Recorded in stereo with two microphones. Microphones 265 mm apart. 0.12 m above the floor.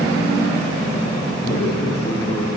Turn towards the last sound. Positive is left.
turn(degrees=55)  # may be behind; listen again after turning